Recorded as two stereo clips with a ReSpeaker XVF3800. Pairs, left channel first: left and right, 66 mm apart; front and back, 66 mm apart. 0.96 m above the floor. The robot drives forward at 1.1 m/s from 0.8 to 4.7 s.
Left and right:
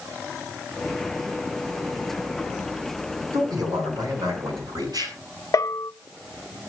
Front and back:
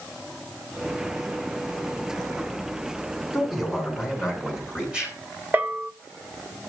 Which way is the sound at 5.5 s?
120° left.